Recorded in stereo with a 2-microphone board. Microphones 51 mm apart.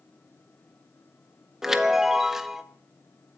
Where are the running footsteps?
No running footsteps in this recording.